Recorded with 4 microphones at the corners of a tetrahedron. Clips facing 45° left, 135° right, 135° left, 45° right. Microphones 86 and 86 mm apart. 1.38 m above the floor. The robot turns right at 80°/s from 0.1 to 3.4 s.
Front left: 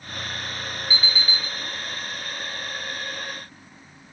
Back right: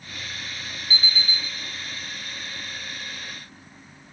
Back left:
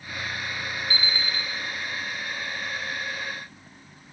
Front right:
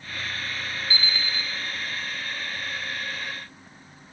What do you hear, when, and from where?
0.9 s an alarm clock: 165° right, 2.0 m; by 1.4 s 120° right, 2.0 m